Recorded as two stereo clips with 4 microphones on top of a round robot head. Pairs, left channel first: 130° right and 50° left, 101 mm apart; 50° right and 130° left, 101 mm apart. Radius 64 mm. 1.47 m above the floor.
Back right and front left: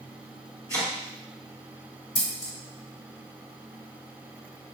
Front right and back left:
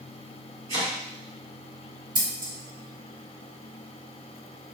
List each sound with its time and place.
0.7 s chopping: 175° left, 1.9 m
2.1 s scissors: 175° left, 1.9 m